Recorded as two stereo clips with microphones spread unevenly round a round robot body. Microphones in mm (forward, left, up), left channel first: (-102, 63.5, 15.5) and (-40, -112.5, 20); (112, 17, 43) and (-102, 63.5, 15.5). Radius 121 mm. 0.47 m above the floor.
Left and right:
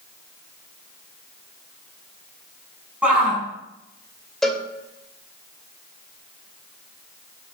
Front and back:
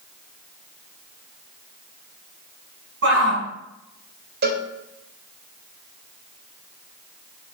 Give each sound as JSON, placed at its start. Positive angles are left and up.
{"t": 3.0, "sound": "a shout", "azimuth_deg": -155, "distance_m": 5.0}
{"t": 4.4, "sound": "a cowbell", "azimuth_deg": -165, "distance_m": 2.5}